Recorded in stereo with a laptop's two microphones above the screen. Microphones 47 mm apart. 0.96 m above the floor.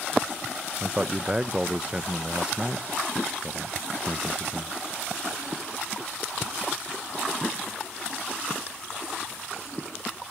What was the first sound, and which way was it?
A man speaking, 20° right (ahead or behind).